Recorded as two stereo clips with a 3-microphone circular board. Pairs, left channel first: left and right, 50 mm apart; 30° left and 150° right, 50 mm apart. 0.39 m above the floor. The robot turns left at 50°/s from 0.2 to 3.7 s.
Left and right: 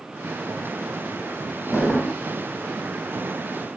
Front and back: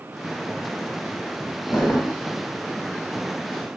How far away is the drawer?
About 1.0 m.